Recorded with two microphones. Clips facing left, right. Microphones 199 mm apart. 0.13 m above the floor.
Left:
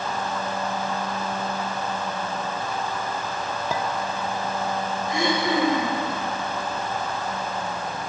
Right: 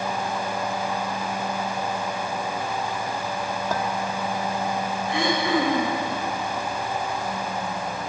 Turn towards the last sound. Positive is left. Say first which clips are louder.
# even
turn(degrees=40)  # may be behind; listen again after turning